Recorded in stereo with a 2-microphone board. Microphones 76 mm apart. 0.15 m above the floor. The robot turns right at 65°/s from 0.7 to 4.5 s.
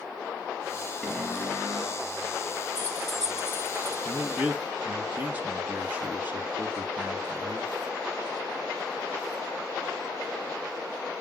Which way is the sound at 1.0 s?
10° left.